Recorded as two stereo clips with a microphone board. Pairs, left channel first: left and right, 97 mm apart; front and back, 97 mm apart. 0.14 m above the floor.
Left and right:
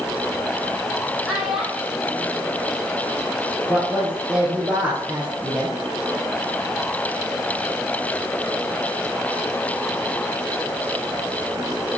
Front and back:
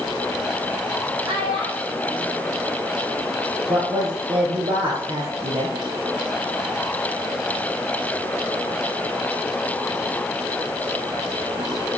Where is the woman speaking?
160° right, 3 m.